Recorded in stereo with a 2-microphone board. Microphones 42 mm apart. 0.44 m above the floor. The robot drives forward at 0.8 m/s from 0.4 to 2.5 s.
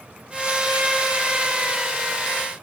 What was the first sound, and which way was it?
Only background noise.